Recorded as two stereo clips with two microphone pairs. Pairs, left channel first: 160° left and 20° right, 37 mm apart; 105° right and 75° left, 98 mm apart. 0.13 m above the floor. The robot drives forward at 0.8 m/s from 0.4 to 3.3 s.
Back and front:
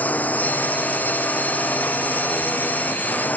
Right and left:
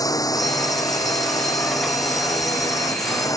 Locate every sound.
0.0 s a drone: 155° right; by 3.4 s 160° right